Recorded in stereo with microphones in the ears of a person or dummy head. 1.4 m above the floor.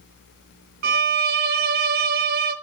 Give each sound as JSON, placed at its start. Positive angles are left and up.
{"t": 0.8, "sound": "a violin", "side_deg": -45, "distance_m": 0.9}